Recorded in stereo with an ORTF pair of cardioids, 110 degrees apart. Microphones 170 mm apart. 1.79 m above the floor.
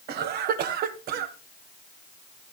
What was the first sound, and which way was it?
A cough, 70° right.